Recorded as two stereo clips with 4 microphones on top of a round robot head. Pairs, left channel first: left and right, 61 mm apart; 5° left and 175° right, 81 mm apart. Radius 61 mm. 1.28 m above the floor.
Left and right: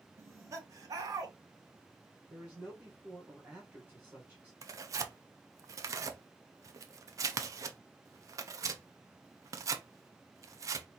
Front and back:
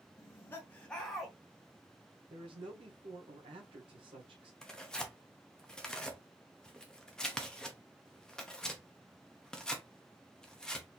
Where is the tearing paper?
75° right, 0.7 m.